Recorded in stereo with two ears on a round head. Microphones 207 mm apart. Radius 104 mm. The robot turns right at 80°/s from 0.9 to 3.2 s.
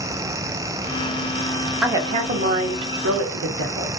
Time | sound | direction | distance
1.8 | a woman speaking | 175° right | 0.8 m